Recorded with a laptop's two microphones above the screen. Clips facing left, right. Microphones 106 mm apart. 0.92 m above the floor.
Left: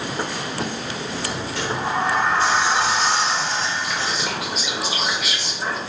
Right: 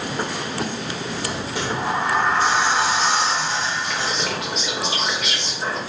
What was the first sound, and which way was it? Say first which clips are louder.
A sliding door: even; 15° right (ahead or behind).